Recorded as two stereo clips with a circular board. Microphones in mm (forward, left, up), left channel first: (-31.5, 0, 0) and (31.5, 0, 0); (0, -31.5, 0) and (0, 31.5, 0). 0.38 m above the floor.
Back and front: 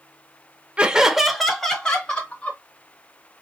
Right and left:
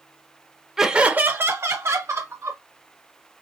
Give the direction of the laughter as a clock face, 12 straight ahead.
11 o'clock.